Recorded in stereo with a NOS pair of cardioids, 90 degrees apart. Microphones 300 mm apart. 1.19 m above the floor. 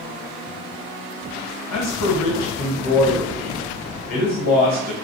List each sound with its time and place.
1.7 s a man speaking: 60° left, 1.2 m